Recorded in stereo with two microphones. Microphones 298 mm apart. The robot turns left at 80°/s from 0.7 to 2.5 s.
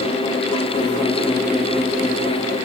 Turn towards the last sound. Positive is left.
No sound to turn to.